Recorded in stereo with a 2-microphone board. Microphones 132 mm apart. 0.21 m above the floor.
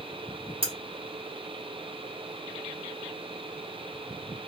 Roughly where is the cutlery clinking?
Right.